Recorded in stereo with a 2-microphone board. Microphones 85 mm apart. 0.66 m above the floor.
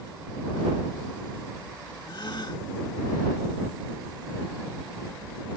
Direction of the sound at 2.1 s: 60° left (ahead or behind).